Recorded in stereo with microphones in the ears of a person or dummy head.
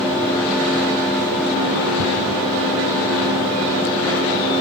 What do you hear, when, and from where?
2.0 s ticking: 70° left (ahead or behind), 3 m